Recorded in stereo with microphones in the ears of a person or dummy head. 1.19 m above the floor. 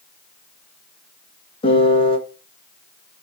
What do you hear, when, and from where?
1.6 s a piano: 30° left (ahead or behind), 0.7 m